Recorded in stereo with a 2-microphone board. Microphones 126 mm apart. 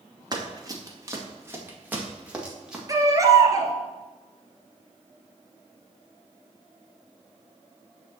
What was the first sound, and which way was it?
Running footsteps, 30° right (ahead or behind).